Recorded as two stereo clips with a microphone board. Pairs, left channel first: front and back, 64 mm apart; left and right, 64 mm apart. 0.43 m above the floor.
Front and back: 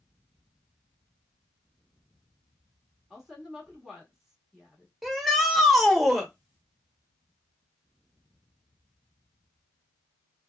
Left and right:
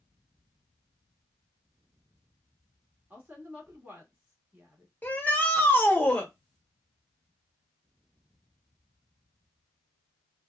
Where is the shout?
90° left, 0.8 m.